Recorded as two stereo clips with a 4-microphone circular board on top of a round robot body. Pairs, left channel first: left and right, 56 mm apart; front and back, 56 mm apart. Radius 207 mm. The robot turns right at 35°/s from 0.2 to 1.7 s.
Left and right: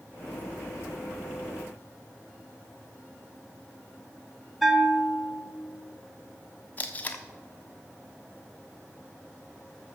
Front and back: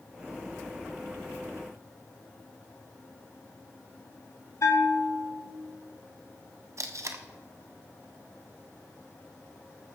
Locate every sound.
4.6 s a bell: 5° right, 2 m
6.8 s tape being pulled: 150° left, 1.3 m